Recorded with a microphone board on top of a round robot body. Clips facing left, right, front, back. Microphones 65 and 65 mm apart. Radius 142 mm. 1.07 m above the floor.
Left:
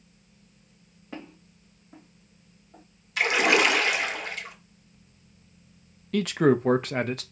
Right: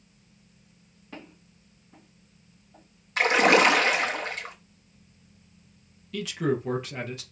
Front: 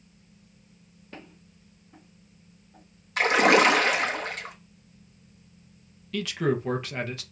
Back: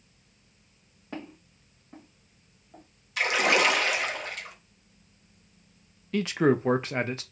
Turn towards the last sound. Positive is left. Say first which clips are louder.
# left 6 dB, back 3 dB
turn(degrees=120)